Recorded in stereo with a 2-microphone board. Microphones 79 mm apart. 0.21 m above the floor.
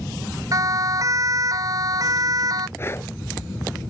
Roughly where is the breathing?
Left.